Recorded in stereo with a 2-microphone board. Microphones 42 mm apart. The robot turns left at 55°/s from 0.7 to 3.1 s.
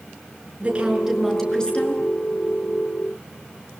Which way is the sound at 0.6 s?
150° right.